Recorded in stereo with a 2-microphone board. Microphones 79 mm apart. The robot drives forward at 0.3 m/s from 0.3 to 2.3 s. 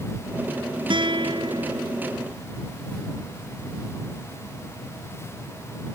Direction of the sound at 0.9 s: 70° right (ahead or behind).